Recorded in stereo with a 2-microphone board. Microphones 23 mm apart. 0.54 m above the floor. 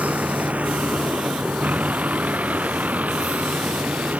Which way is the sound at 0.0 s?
85° right.